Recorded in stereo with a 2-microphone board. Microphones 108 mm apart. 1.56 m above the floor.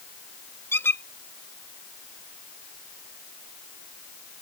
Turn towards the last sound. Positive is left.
turn(degrees=20)  # may be behind; listen again after turning